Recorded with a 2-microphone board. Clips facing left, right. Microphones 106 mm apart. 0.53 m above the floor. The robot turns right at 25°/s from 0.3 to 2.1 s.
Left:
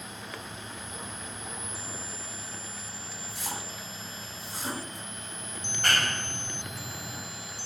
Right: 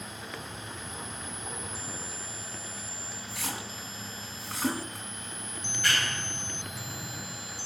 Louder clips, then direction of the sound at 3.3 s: Right 1 dB; 75° right (ahead or behind).